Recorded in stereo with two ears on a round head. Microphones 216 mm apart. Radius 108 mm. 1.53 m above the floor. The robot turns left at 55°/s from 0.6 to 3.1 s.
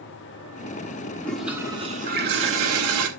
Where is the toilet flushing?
10° left, 1.9 m; by 3.1 s 95° right, 1.9 m.